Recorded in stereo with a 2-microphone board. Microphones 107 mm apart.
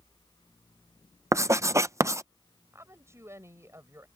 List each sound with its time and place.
1.3 s writing: 25° right (ahead or behind)
2.7 s a woman speaking: 25° right (ahead or behind)